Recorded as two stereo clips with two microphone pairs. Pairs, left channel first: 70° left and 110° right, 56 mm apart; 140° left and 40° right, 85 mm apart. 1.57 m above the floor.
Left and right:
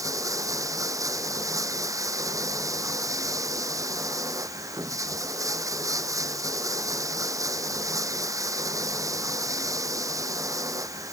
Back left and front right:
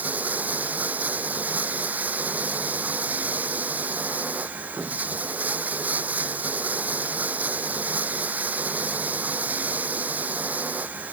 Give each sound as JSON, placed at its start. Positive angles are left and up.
{"t": 0.0, "sound": "running water", "azimuth_deg": -110}